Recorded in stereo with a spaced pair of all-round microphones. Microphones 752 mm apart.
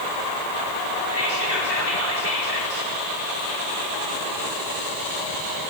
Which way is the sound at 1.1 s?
65° left (ahead or behind).